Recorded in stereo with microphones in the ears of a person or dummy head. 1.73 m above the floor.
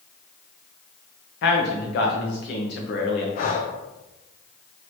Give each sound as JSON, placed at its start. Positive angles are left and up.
{"t": 1.4, "sound": "a man speaking", "side_deg": 55, "distance_m": 1.1}
{"t": 3.4, "sound": "breathing", "side_deg": 40, "distance_m": 0.6}